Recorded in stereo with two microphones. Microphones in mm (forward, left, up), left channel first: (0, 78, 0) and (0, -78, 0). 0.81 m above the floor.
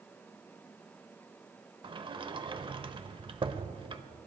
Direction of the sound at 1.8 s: 35° right (ahead or behind).